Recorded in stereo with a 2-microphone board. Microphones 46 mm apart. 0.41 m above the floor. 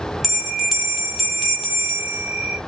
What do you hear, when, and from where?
0.2 s a bell: centre (ahead or behind), 1.5 m